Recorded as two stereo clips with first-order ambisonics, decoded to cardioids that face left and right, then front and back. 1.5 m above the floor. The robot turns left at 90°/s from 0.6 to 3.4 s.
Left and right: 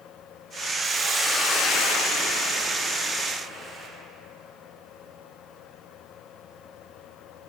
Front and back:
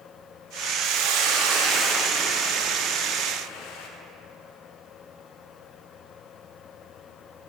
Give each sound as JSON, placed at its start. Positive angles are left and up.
{"t": 0.8, "sound": "a hiss", "azimuth_deg": -145, "distance_m": 0.6}